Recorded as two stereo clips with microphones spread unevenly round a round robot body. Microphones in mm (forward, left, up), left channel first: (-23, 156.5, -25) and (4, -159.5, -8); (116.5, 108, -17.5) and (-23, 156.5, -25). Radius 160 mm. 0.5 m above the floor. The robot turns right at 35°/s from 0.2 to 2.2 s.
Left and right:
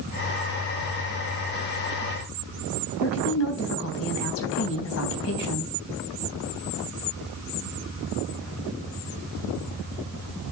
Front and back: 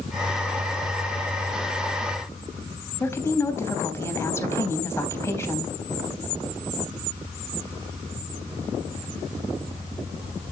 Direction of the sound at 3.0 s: 50° left.